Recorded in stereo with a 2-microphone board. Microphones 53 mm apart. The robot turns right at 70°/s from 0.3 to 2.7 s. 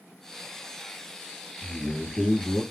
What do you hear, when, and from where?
1.6 s a man speaking: 135° left, 2 m; by 2.6 s 155° right, 2 m